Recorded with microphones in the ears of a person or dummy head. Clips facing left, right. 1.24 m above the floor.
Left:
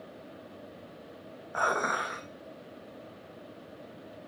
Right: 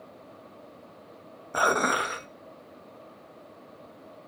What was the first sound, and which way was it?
Dishes clattering, 40° right (ahead or behind).